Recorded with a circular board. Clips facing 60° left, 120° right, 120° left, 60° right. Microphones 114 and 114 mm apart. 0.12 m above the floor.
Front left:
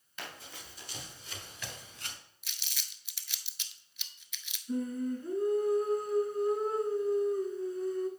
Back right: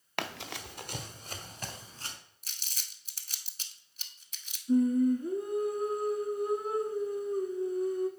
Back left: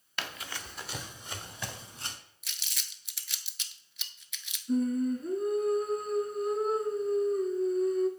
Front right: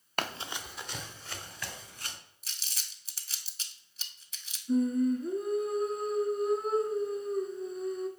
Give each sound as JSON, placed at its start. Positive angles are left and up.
{"t": 0.2, "sound": "running footsteps", "azimuth_deg": -100, "distance_m": 0.7}
{"t": 2.4, "sound": "crumpling", "azimuth_deg": -95, "distance_m": 0.7}
{"t": 4.7, "sound": "singing", "azimuth_deg": -145, "distance_m": 1.3}